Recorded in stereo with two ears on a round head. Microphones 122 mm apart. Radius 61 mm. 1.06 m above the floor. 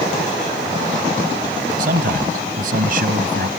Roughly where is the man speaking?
Right.